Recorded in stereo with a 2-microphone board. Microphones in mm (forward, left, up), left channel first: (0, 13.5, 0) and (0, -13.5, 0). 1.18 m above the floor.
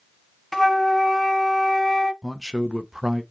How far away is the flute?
About 1.5 m.